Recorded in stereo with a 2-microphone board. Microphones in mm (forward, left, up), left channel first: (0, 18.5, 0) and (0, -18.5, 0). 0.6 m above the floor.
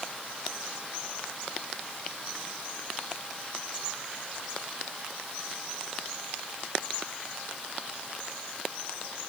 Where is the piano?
No piano in this recording.